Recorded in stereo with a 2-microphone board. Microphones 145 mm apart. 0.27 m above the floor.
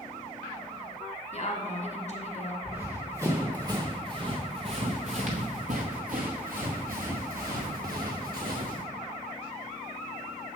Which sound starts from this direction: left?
A woman speaking, at 1.3 s.